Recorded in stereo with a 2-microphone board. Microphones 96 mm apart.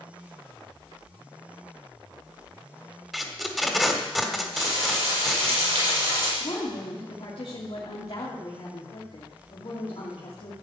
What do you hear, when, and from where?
3.1 s tape being pulled: centre (ahead or behind), 1.3 m
4.5 s frying: 70° right (ahead or behind), 7.5 m
6.4 s a woman speaking: 75° left (ahead or behind), 2.5 m